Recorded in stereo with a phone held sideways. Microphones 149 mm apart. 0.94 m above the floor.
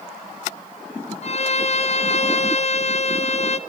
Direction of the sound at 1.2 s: 50° left (ahead or behind).